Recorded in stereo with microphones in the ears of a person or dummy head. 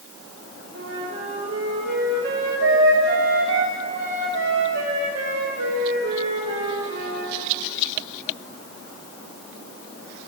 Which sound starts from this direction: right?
A flute, at 0.7 s.